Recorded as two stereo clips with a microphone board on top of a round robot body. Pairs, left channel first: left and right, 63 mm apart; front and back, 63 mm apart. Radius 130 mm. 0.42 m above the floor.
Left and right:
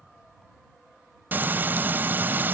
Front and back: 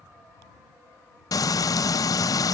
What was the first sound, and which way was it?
Frying, 30° right.